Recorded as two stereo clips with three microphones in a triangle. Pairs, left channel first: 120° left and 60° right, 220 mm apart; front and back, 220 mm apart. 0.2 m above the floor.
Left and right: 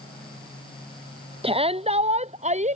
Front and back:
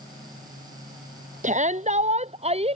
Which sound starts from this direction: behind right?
A shout, at 1.4 s.